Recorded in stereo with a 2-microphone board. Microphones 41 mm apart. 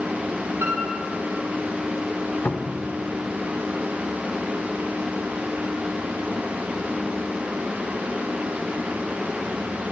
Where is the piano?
85° right, 4.5 m.